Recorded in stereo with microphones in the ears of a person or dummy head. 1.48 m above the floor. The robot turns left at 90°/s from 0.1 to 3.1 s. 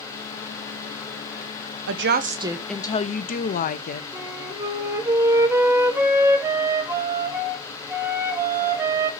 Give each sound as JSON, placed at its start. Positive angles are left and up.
{"t": 1.9, "sound": "a woman speaking", "azimuth_deg": -115, "distance_m": 1.1}
{"t": 4.1, "sound": "a flute", "side_deg": -15, "distance_m": 1.6}